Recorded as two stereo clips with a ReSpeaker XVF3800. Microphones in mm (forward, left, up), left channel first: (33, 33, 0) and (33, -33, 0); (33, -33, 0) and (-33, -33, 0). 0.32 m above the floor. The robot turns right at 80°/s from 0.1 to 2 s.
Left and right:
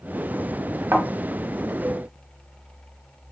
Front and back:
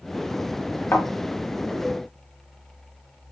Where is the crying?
I don't hear crying.